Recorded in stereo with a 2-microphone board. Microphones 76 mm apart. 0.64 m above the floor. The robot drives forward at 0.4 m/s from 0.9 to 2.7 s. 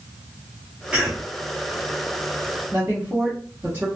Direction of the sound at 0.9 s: 15° right (ahead or behind).